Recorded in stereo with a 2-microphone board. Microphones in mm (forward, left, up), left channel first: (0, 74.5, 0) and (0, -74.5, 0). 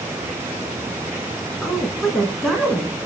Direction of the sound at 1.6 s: Centre (ahead or behind).